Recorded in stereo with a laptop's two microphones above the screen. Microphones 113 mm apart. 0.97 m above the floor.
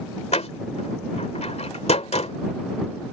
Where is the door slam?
70° left (ahead or behind).